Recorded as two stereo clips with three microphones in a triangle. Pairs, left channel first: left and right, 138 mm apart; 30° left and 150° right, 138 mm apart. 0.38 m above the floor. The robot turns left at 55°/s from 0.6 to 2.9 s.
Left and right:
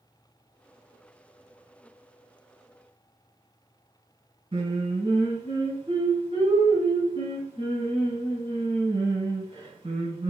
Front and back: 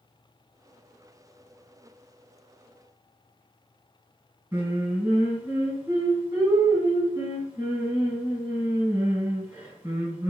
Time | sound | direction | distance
4.5 | singing | 90° right | 1.7 m